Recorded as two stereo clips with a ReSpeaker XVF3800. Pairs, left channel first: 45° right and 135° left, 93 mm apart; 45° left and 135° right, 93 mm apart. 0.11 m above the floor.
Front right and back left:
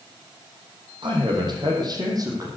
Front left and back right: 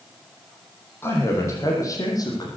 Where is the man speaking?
110° left, 5 m; by 2.5 s 85° left, 5.5 m.